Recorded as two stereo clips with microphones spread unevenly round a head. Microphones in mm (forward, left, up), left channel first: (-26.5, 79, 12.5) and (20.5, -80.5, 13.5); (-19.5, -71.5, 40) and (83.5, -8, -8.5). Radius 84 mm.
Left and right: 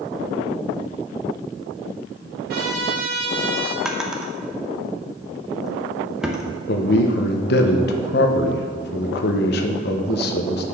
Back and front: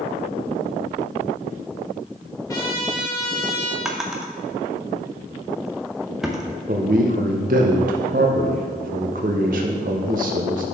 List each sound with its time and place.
2.5 s a trumpet: 105° right, 2.0 m
3.9 s a drawer: 155° right, 0.7 m
6.7 s a man speaking: 80° left, 0.8 m